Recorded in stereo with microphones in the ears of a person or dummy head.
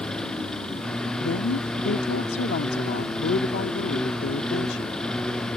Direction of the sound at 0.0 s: 10° left (ahead or behind).